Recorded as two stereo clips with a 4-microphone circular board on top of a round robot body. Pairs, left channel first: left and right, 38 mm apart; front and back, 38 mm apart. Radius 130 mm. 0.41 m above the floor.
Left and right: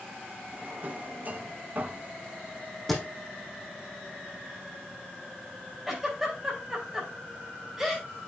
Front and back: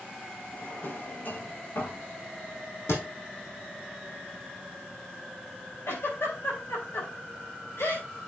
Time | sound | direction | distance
0.5 | a drawer | 40° right | 1.8 m
2.9 | a thud | 5° left | 3 m
5.9 | a giggle | 10° right | 5 m